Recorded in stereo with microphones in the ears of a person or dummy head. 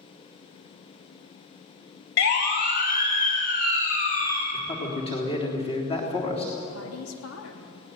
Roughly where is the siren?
Left.